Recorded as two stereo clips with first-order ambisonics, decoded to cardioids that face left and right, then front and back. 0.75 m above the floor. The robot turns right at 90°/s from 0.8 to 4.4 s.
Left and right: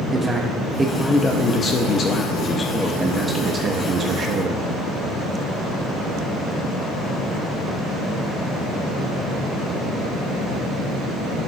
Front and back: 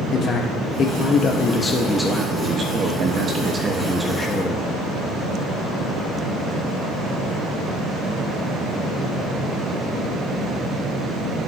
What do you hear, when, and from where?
0.1 s a man speaking: 20° right, 0.8 m; by 4.7 s 55° right, 0.8 m